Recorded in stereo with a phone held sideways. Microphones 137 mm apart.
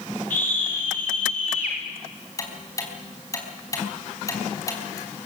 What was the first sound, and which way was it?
A scream, 70° left (ahead or behind).